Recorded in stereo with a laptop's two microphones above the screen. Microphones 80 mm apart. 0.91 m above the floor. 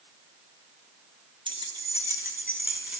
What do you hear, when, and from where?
1.5 s keys jangling: 80° right, 0.9 m; by 3.0 s 20° right (ahead or behind), 1.9 m